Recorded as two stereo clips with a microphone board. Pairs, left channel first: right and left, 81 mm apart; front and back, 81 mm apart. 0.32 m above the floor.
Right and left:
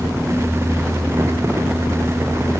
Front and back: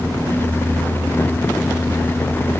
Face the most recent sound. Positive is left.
No sound to turn to.